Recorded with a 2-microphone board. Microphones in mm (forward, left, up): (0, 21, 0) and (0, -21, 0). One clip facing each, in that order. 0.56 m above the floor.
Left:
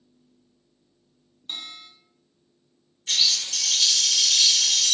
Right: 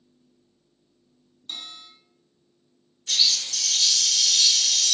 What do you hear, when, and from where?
1.5 s a bell: 20° left (ahead or behind), 0.7 m
3.1 s a bird: 50° left (ahead or behind), 0.8 m